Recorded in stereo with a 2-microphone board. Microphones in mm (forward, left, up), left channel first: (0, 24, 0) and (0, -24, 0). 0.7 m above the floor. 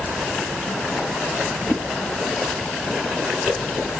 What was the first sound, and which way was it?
A splash, 55° left (ahead or behind).